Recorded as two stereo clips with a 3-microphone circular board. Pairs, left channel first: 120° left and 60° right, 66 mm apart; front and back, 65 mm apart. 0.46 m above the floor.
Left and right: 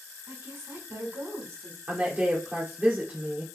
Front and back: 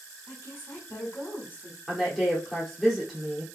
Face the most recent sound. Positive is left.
turn(degrees=-85)